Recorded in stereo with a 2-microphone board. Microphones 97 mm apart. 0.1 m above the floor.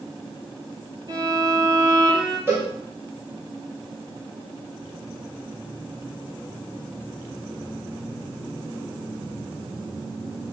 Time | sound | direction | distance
1.1 | a violin | 40° right (ahead or behind) | 1.9 m
2.5 | a cowbell | 25° right (ahead or behind) | 2 m